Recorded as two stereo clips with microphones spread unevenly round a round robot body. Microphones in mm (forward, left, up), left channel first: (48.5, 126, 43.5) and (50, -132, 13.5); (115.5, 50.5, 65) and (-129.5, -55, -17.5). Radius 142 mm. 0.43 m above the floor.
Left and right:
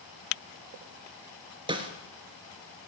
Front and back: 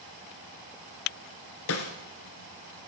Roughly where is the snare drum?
Ahead.